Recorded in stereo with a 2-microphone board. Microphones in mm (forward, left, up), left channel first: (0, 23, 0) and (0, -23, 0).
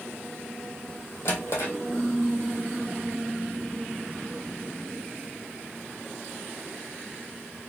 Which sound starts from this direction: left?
A drawer, at 1.2 s.